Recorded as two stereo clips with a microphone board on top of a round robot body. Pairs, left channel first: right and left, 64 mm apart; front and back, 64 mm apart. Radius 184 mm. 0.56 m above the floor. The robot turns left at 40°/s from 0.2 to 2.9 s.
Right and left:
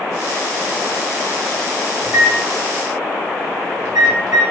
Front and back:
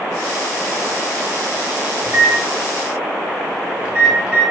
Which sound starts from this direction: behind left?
A microwave, at 2.0 s.